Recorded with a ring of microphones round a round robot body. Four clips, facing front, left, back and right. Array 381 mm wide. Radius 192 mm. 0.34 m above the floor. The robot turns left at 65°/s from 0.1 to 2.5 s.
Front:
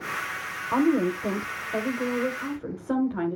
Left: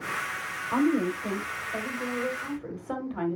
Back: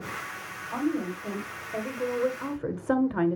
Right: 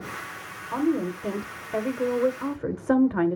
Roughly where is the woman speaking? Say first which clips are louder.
Even, front 7 dB; ahead.